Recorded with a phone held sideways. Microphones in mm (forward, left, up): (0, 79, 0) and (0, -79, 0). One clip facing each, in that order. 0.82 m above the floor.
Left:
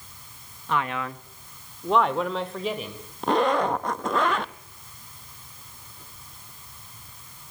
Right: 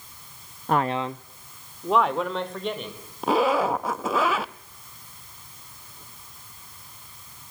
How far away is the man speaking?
About 0.6 m.